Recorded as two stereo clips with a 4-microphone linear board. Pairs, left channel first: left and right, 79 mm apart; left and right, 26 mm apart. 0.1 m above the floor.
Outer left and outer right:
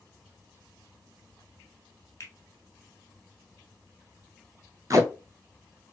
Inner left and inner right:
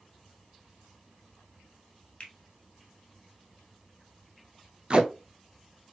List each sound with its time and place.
2.2 s a finger snap: 40° left (ahead or behind), 1.1 m
4.9 s tape being pulled: 45° right (ahead or behind), 0.6 m